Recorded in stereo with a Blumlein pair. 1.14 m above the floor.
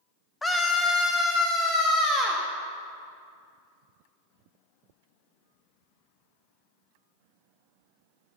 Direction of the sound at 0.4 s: 10° left.